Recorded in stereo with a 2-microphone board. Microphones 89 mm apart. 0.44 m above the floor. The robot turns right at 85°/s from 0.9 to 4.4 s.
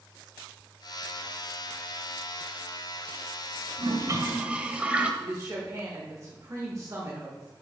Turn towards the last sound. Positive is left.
turn(degrees=-40)  # may be behind; listen again after turning